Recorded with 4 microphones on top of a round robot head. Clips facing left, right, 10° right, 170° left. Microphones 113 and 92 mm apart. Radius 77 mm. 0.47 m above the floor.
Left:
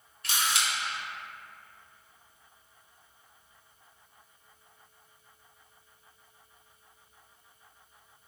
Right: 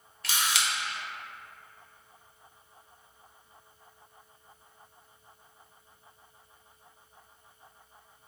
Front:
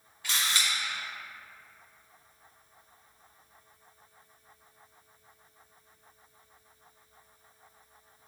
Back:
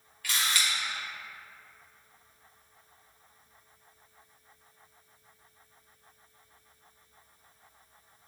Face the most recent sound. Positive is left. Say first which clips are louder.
# even, even
turn(degrees=-80)